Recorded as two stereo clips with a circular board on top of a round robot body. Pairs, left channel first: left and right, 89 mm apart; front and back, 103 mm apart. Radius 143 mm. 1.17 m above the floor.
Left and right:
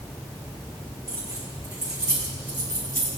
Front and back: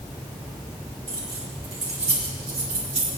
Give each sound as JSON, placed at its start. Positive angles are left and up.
{"t": 1.1, "sound": "keys jangling", "azimuth_deg": -150, "distance_m": 3.5}